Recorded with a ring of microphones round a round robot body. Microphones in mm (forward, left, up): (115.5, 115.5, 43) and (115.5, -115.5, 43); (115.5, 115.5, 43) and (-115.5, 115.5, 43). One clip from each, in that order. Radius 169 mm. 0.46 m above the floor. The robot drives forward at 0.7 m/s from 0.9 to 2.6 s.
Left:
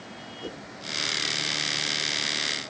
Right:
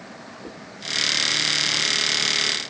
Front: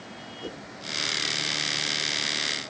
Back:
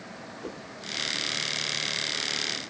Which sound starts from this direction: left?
A whoosh, at 0.4 s.